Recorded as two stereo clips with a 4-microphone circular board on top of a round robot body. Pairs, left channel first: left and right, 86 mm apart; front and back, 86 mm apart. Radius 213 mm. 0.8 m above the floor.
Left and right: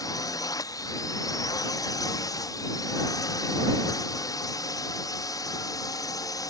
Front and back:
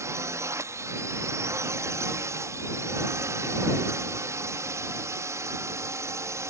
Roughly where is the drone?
Behind left.